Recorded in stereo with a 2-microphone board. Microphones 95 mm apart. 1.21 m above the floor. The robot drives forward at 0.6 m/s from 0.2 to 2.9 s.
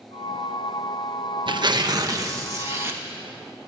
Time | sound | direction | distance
1.5 | tearing paper | 55° right (ahead or behind) | 0.8 m